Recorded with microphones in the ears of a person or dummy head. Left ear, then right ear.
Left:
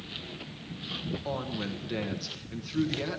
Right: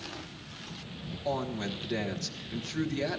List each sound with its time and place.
1.2 s a woman speaking: 5° left (ahead or behind), 1.2 m